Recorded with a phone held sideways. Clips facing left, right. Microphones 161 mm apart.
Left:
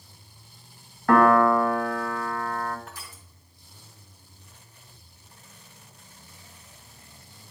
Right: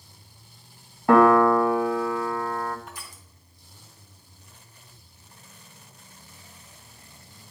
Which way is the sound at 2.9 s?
20° right (ahead or behind).